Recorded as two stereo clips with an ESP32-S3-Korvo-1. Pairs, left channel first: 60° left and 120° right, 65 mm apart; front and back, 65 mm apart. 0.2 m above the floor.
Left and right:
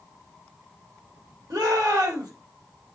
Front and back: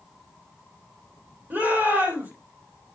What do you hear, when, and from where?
1.5 s a shout: 125° right, 7 m